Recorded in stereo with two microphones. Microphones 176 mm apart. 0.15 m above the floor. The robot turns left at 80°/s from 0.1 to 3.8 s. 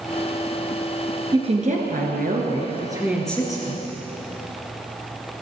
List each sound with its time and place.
1.3 s a woman speaking: 30° right, 2 m; by 3.9 s 135° left, 2 m